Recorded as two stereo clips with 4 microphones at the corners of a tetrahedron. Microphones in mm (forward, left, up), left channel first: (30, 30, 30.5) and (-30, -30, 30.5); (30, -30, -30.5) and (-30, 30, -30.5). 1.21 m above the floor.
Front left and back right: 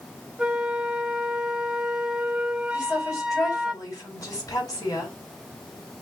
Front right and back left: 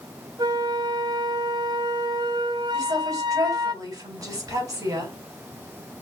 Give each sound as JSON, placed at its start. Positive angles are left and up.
{"t": 0.4, "sound": "a flute", "azimuth_deg": 145, "distance_m": 0.9}
{"t": 2.7, "sound": "a woman speaking", "azimuth_deg": 90, "distance_m": 4.5}